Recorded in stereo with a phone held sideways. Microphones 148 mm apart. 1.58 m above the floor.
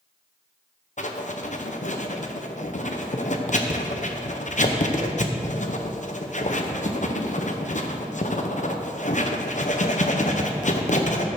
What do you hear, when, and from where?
1.0 s writing: 55° left (ahead or behind), 0.9 m